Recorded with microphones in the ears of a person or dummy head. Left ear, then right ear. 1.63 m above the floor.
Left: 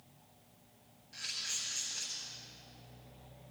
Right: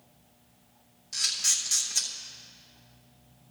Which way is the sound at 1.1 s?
80° right.